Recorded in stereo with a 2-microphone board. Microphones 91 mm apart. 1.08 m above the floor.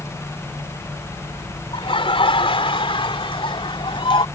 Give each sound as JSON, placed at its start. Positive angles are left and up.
{"t": 1.7, "sound": "laughter", "side_deg": 80}